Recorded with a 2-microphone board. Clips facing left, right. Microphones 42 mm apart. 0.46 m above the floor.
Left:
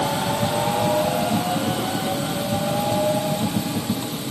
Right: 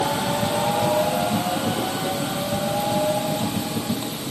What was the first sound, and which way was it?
Only background noise.